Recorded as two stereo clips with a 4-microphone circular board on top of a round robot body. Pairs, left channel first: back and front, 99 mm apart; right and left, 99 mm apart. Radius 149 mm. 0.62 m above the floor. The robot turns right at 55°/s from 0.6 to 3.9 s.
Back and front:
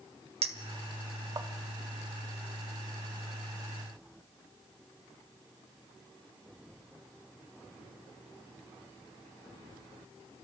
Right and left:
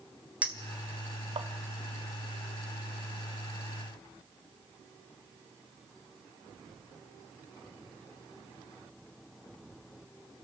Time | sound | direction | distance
0.4 | a clink | 15° left | 1.5 m